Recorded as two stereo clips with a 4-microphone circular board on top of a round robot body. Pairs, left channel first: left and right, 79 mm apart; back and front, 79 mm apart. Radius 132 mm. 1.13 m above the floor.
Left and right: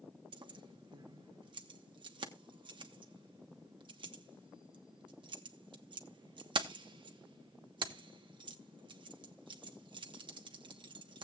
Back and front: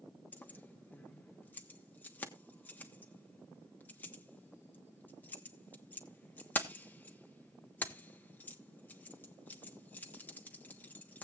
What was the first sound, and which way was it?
Keys jangling, 110° right.